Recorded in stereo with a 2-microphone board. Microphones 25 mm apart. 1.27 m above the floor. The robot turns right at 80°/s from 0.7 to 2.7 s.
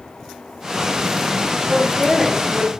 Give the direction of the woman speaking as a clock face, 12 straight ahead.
8 o'clock.